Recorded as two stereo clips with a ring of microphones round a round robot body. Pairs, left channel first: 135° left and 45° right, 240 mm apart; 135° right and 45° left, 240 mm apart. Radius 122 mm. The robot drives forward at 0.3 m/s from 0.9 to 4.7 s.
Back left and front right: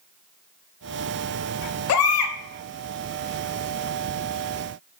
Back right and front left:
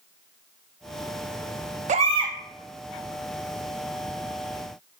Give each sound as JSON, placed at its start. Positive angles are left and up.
{"t": 1.9, "sound": "a baby crying", "azimuth_deg": 105, "distance_m": 0.5}